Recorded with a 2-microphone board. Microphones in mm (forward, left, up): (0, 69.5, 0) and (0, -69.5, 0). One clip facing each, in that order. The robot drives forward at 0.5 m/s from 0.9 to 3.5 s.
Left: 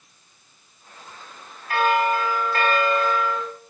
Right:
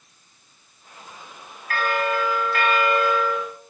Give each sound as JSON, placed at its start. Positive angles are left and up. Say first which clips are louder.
{"t": 1.7, "sound": "a bell", "louder": "left 3 dB", "side_deg": 25, "distance_m": 0.8}